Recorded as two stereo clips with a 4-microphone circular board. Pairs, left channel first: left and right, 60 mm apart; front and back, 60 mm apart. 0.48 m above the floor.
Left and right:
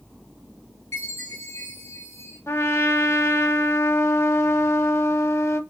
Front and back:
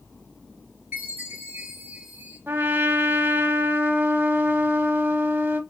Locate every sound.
0.9 s a chime: 120° left, 3 m
2.5 s a trumpet: 130° left, 0.6 m